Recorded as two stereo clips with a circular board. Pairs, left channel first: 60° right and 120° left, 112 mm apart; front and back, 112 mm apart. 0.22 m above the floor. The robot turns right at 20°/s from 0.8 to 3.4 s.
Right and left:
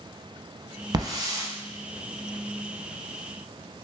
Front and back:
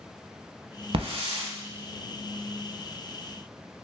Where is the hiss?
165° left, 0.7 m; by 1.5 s 175° left, 0.7 m.